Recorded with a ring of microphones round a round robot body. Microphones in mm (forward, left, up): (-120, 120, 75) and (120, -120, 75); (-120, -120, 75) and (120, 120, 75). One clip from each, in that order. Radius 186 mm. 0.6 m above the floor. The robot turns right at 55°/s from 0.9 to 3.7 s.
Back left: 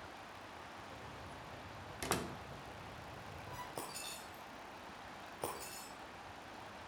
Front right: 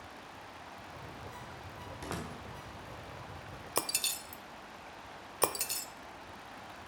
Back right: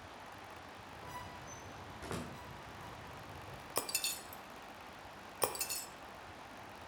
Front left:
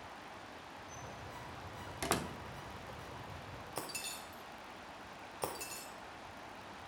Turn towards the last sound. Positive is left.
turn(degrees=-70)